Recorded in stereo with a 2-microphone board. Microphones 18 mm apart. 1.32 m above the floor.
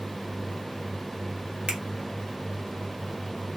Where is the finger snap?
80° right, 1.4 m.